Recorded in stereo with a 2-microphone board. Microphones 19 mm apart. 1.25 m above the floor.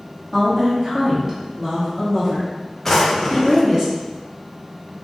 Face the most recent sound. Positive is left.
turn(degrees=10)  # may be behind; listen again after turning